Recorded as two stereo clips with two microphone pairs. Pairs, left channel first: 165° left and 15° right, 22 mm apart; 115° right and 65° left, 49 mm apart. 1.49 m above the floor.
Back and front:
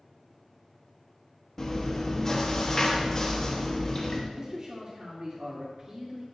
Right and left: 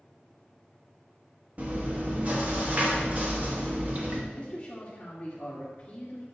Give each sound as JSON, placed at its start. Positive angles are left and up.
{"t": 1.6, "sound": "chewing", "azimuth_deg": 110, "distance_m": 1.2}
{"t": 4.3, "sound": "a man speaking", "azimuth_deg": -50, "distance_m": 1.6}